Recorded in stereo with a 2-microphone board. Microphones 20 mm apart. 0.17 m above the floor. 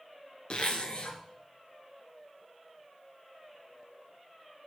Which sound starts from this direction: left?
A zipper, at 0.5 s.